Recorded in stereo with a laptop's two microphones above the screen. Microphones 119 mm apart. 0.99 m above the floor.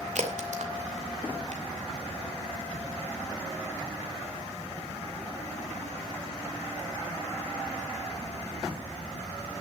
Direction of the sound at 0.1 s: 75° right (ahead or behind).